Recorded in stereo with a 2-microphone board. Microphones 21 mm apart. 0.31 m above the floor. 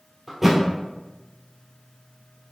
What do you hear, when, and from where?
0.3 s a thud: 15° right (ahead or behind), 1.4 m